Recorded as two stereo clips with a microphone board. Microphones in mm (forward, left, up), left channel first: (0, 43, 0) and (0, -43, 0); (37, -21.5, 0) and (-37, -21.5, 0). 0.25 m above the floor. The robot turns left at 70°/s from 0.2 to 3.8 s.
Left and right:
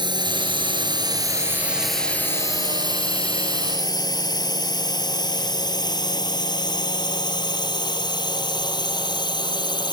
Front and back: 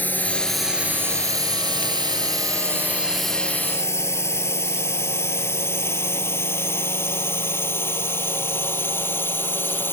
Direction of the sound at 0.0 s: 65° right.